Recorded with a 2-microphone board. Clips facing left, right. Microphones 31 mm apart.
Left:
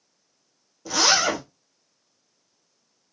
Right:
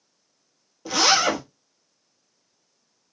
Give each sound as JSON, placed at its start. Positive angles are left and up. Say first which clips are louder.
{"t": 0.8, "sound": "a zipper", "louder": "right 1 dB", "side_deg": -30, "distance_m": 1.0}